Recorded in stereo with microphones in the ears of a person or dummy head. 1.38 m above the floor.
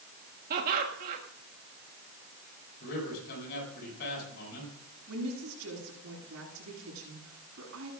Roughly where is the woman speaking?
Right.